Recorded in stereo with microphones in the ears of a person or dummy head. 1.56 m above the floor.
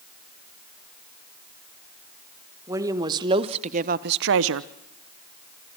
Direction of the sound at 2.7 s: 15° right (ahead or behind).